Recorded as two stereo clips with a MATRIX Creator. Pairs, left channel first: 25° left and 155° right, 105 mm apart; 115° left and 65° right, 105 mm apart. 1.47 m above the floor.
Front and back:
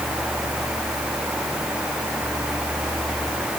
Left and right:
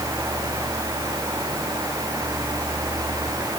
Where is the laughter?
No laughter in this recording.